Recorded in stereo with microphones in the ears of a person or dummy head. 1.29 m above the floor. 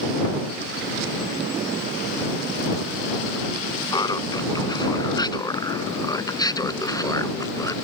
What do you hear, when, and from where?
3.9 s laughter: 30° left (ahead or behind); by 7.8 s 25° left (ahead or behind)